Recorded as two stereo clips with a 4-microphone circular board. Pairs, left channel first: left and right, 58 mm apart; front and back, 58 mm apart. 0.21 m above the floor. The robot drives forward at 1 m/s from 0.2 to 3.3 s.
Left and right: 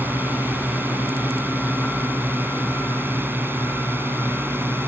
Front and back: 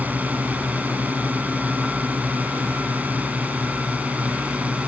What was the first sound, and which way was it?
A drone, 130° right.